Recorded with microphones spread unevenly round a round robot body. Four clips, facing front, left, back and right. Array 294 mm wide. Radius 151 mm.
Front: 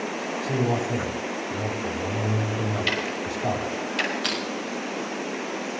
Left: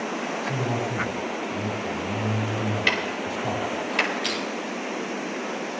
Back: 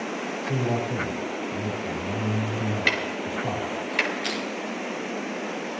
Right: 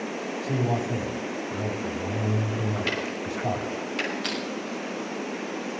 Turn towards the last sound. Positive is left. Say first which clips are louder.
# left 2 dB, front 1 dB
turn(degrees=15)